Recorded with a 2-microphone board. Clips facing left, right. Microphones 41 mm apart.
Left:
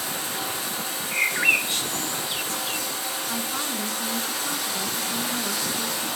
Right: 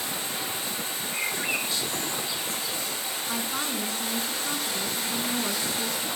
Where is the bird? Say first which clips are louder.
Left 9 dB; 55° left (ahead or behind), 0.9 m.